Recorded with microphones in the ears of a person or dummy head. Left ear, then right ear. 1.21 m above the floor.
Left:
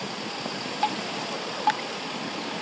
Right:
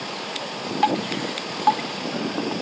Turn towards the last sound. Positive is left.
turn(degrees=-15)  # may be behind; listen again after turning